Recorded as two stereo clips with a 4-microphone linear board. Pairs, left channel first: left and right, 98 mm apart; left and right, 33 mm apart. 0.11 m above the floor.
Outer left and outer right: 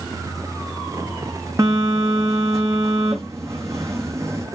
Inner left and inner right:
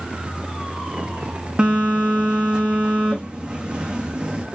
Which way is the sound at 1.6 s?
30° right (ahead or behind).